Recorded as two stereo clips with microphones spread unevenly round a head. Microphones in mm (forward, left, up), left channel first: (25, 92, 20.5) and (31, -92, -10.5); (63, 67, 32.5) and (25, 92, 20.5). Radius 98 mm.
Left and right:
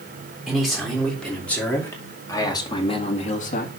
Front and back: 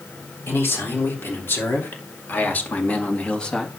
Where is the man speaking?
Straight ahead, 3.5 m; by 3.7 s 50° left, 1.6 m.